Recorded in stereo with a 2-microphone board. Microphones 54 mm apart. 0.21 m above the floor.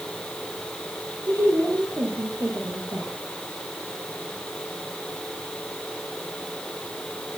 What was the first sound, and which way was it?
A woman speaking, 75° right (ahead or behind).